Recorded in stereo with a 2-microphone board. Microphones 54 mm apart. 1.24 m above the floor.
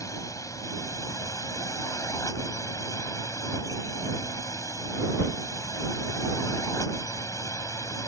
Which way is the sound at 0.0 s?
75° left (ahead or behind).